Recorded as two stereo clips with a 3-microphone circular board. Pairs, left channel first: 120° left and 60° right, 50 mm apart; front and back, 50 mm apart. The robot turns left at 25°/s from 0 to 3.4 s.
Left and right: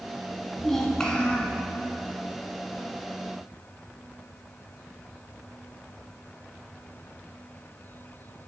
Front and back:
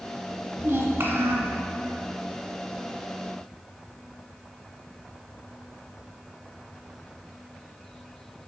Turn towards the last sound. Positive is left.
turn(degrees=140)